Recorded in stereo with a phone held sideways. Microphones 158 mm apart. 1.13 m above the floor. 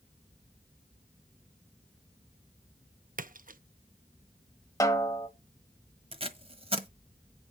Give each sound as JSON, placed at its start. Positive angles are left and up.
{"t": 3.2, "sound": "a splash", "side_deg": -60, "distance_m": 0.6}
{"t": 4.8, "sound": "a snare drum", "side_deg": 20, "distance_m": 1.5}
{"t": 6.1, "sound": "tape being pulled", "side_deg": -35, "distance_m": 1.3}